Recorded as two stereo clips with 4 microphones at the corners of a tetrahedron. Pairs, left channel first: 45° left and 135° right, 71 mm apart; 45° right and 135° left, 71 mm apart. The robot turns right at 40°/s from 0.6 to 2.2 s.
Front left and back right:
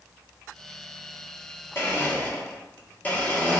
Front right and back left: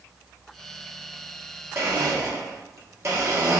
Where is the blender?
90° left, 1.0 m; by 3.6 s 105° left, 1.0 m.